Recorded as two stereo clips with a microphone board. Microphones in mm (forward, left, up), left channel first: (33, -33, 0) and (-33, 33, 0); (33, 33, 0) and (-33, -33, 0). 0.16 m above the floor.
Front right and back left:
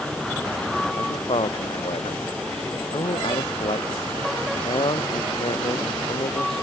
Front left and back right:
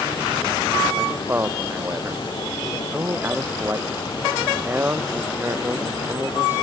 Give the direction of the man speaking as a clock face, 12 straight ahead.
2 o'clock.